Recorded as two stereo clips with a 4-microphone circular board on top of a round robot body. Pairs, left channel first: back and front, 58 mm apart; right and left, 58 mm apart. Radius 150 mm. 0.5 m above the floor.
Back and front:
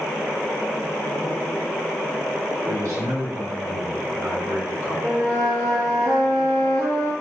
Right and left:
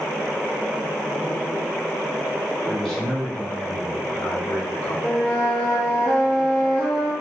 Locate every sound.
2.7 s a man speaking: 5° right, 1.6 m; by 4.9 s 55° right, 2.5 m
5.0 s a flute: 15° right, 2 m